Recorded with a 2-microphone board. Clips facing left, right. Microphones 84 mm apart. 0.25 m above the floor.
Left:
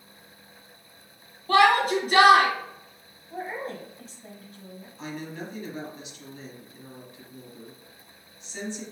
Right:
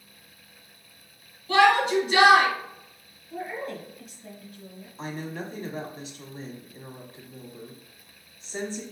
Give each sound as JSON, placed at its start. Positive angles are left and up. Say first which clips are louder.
{"t": 1.5, "sound": "a shout", "louder": "even", "side_deg": 45, "distance_m": 1.9}
{"t": 3.3, "sound": "a woman speaking", "louder": "even", "side_deg": 35, "distance_m": 1.4}
{"t": 5.0, "sound": "a woman speaking", "louder": "right 2 dB", "side_deg": -40, "distance_m": 1.4}